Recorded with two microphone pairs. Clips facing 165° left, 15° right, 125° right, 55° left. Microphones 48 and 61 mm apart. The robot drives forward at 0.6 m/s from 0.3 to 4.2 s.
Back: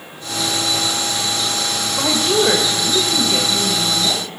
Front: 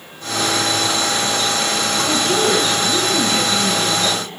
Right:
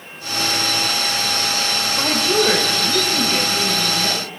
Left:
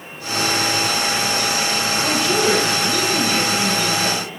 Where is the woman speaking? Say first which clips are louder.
Back 2 dB, right 2 dB; 175° left, 2.5 m.